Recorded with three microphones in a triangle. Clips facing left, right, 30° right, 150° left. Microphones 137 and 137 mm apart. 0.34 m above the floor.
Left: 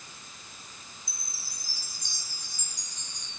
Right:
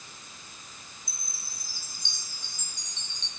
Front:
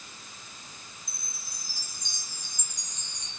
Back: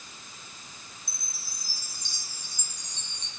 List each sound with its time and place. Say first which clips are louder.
1.1 s a chime: even, even; 155° right, 3 m